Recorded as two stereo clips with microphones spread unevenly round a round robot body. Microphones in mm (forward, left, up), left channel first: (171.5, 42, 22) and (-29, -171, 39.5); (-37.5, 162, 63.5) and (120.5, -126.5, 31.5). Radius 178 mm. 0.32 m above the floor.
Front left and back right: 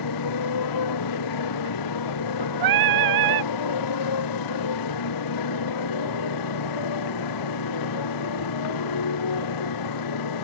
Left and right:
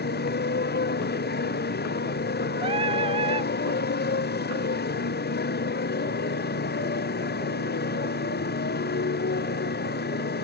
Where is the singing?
135° right.